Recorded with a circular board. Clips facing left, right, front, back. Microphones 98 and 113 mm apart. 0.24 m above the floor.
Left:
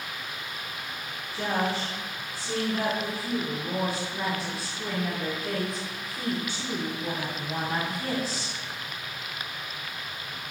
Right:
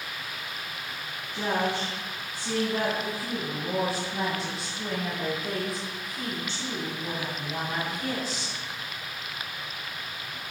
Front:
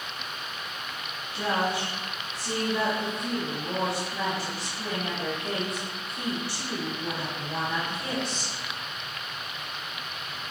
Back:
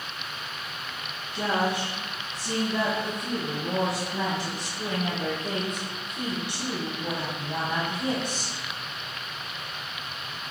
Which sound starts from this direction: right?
A woman speaking, at 1.3 s.